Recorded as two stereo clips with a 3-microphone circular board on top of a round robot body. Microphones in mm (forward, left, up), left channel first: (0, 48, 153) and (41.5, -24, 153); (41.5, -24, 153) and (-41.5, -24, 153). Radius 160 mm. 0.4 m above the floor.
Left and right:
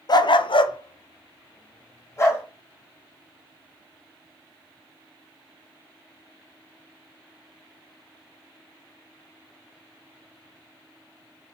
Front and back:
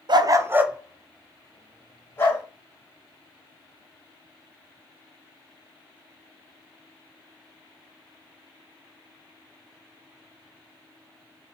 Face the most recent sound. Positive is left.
turn(degrees=60)